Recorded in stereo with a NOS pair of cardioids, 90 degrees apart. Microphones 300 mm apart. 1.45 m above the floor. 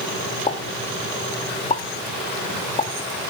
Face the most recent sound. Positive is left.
turn(degrees=20)